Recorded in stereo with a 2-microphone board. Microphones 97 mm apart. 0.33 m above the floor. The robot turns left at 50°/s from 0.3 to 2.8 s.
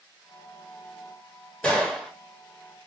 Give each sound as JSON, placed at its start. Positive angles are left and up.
{"t": 1.6, "sound": "a gunshot", "side_deg": 10, "distance_m": 1.4}